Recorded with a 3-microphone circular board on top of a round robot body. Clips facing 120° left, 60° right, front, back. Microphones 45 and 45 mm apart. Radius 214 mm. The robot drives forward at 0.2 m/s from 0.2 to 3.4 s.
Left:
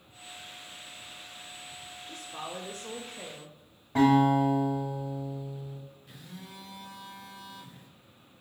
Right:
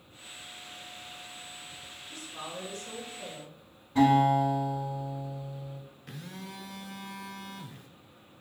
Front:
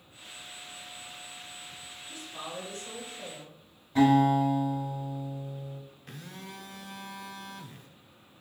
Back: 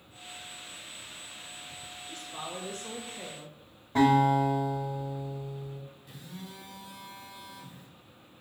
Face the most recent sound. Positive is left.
turn(degrees=-35)